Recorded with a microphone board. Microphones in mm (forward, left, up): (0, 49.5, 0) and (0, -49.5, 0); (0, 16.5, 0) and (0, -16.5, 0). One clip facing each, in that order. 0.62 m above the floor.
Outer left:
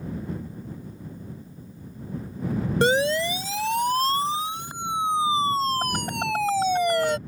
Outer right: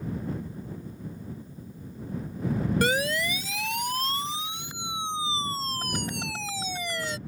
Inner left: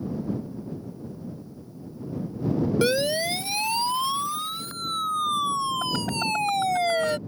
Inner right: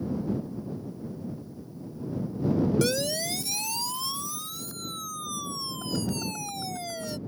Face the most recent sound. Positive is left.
turn(degrees=60)  # may be behind; listen again after turning